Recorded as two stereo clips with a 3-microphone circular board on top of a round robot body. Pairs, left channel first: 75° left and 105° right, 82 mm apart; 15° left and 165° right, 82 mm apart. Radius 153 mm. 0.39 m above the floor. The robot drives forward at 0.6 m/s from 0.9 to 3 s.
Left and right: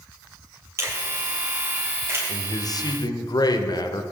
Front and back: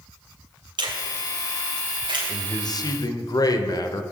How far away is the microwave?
I don't hear a microwave.